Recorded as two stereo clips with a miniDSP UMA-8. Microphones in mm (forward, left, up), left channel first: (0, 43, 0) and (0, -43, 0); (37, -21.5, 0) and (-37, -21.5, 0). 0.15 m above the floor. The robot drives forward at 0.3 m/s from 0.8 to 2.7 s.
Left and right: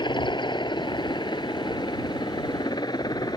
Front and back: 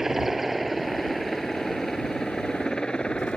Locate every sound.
0.0 s a helicopter: 95° left; by 3.4 s 75° left